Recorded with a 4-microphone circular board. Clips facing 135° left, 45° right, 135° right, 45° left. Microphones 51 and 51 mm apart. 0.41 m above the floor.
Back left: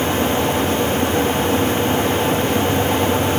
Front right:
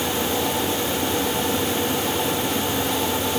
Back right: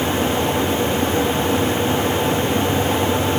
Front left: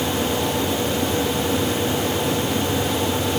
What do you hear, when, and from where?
Only background noise.